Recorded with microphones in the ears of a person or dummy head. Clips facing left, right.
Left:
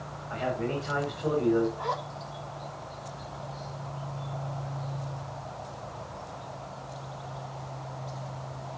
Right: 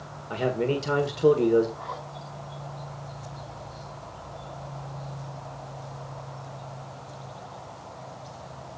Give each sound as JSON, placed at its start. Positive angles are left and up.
{"t": 0.3, "sound": "a man speaking", "side_deg": -60, "distance_m": 1.4}
{"t": 1.8, "sound": "a zipper", "side_deg": 90, "distance_m": 6.0}